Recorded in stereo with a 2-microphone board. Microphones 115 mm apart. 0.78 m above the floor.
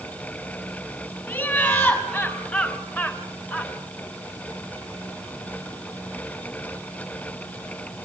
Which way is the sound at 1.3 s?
20° left (ahead or behind).